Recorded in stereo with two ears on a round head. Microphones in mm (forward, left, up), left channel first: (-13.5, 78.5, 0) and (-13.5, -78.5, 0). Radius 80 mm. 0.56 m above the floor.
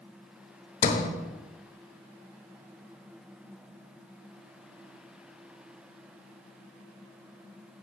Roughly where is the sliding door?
Left.